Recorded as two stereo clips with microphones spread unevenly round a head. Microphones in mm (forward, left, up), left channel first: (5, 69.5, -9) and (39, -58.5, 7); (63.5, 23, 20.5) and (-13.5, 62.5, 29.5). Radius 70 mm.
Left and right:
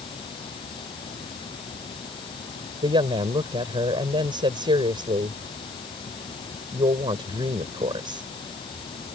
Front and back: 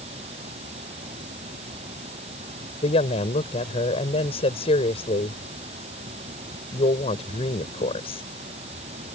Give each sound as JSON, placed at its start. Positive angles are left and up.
{"t": 0.0, "sound": "running water", "azimuth_deg": 165}
{"t": 2.8, "sound": "a woman speaking", "azimuth_deg": -20}